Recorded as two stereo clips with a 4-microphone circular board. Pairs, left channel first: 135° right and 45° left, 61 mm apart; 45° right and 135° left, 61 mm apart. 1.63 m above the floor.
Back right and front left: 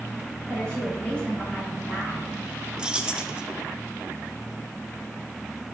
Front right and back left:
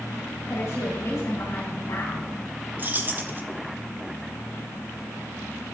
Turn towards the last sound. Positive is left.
turn(degrees=110)